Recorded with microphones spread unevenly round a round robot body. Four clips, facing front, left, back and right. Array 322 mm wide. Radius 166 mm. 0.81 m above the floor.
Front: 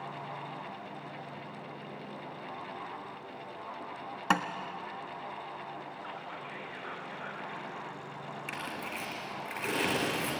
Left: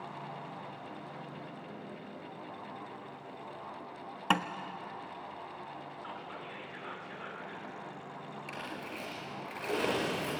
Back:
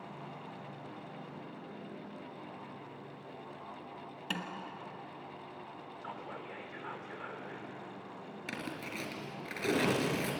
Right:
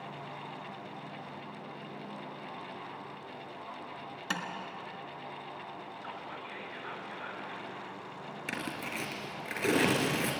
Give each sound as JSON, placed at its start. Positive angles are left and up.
{"t": 4.3, "sound": "tapping", "azimuth_deg": 35, "distance_m": 1.4}
{"t": 6.0, "sound": "whispering", "azimuth_deg": -175, "distance_m": 2.5}
{"t": 8.5, "sound": "tearing paper", "azimuth_deg": -120, "distance_m": 4.0}